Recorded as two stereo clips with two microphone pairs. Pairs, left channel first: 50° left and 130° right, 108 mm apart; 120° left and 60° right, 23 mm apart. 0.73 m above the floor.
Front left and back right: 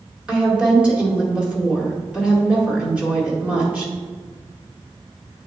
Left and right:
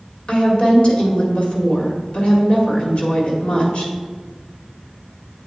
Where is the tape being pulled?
No tape being pulled in this recording.